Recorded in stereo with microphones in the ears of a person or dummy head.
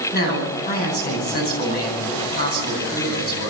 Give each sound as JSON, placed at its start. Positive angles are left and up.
{"t": 0.1, "sound": "a man speaking", "side_deg": 60, "distance_m": 9.5}